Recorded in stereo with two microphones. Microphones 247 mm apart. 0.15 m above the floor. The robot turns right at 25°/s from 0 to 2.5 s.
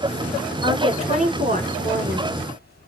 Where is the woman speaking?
150° right, 2 m; by 2.3 s 110° right, 2 m.